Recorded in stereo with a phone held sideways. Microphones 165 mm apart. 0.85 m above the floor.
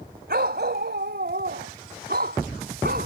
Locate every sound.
0.3 s a dog barking: 80° right; by 3.1 s 75° right (ahead or behind)